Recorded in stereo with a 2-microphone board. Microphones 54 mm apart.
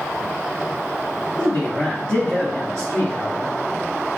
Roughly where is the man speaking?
Centre.